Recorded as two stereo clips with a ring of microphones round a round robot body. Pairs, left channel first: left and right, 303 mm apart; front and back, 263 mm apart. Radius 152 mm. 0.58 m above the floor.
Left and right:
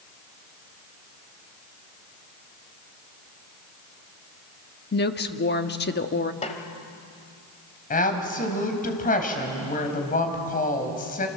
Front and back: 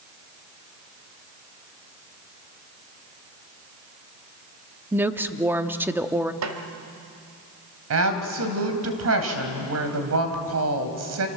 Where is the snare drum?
160° left, 1.9 m.